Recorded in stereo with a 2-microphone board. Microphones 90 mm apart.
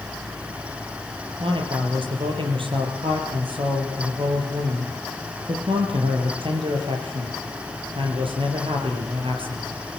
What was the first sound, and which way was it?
A man speaking, 75° right (ahead or behind).